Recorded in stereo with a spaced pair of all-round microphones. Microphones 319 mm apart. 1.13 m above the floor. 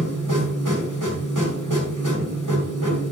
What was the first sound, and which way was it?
A machine running, 70° right (ahead or behind).